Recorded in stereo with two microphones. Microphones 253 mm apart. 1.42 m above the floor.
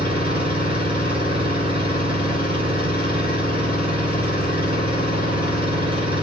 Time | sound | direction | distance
0.0 | an engine running | 20° right (ahead or behind) | 2.5 m